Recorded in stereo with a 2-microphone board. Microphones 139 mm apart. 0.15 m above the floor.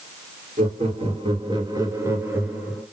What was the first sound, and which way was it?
Laughter, 50° right (ahead or behind).